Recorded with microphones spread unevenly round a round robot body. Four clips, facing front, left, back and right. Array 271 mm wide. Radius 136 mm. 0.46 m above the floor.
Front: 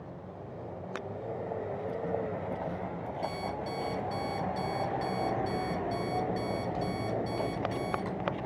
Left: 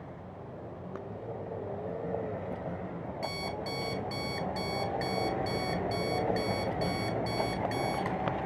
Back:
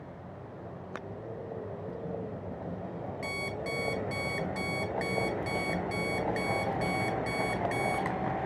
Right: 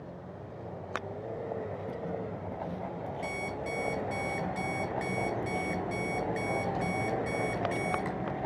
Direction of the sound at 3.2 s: 170° left.